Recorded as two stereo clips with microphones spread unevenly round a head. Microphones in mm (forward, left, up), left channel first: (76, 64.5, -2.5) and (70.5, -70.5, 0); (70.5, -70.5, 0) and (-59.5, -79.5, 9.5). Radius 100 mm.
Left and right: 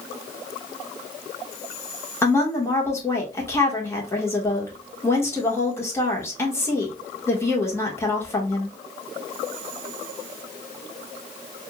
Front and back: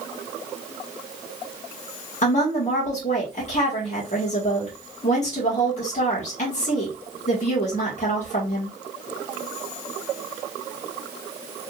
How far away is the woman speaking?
About 1.4 m.